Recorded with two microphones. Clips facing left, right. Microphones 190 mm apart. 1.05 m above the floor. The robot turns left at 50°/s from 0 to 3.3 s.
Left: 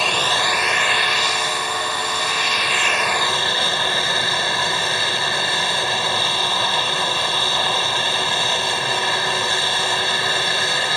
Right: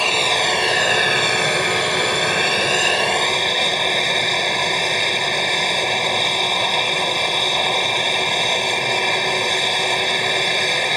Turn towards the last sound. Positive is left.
turn(degrees=-165)